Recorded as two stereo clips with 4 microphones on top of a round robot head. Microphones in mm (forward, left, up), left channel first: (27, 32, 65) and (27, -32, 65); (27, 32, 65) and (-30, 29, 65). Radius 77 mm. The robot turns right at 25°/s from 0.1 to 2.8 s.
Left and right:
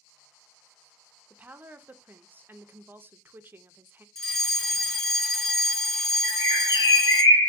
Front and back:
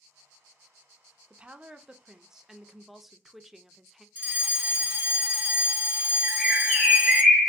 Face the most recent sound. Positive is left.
turn(degrees=100)